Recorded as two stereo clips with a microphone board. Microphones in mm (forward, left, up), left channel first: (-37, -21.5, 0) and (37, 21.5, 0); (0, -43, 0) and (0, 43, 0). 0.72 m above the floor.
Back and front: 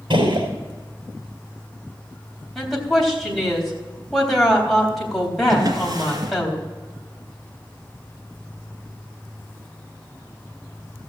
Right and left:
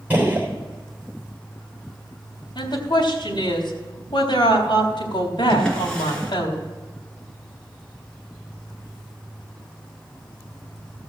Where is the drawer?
10° right, 2.5 m.